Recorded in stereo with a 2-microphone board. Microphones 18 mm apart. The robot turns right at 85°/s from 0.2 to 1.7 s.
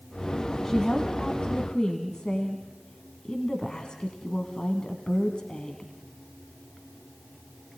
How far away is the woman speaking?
About 1.8 m.